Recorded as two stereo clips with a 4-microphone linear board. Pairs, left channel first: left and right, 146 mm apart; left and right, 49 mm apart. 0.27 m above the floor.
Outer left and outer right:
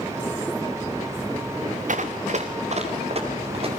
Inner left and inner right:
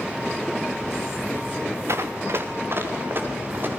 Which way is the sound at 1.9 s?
60° right (ahead or behind).